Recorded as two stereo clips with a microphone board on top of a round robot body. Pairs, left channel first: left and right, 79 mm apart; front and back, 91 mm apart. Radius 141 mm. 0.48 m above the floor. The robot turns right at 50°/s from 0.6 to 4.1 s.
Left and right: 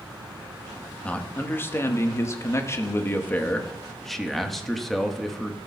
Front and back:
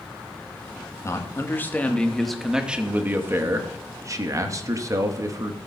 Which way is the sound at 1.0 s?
25° left.